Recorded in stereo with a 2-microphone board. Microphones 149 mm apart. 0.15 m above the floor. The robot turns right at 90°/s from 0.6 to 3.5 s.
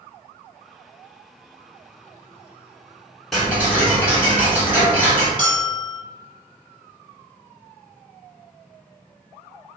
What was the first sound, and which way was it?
Ticking, centre (ahead or behind).